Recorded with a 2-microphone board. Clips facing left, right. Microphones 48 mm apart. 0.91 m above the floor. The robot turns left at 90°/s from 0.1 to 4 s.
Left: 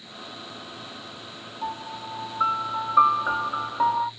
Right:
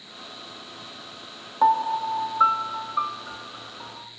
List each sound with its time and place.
1.6 s a piano: 90° right, 0.6 m; by 4.1 s 55° left, 0.6 m